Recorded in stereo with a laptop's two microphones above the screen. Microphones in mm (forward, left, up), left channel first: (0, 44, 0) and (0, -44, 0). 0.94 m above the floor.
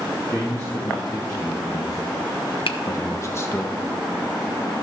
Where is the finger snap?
85° left, 0.7 m.